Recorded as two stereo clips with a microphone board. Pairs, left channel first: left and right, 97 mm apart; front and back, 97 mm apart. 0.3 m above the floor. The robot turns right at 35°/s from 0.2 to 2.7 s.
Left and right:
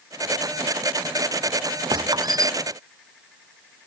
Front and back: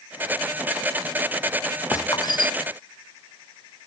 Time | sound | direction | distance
1.9 | a squeak | 60° right | ?